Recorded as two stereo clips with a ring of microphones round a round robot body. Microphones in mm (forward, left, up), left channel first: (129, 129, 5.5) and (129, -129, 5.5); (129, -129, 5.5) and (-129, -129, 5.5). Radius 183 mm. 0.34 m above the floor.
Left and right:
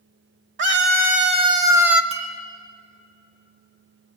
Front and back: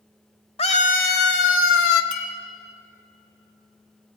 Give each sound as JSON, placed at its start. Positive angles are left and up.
{"t": 0.6, "sound": "a scream", "azimuth_deg": -65, "distance_m": 1.2}
{"t": 2.1, "sound": "a clink", "azimuth_deg": -60, "distance_m": 2.5}